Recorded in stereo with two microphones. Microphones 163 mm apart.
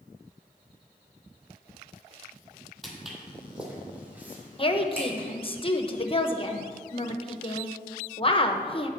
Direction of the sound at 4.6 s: 35° left (ahead or behind).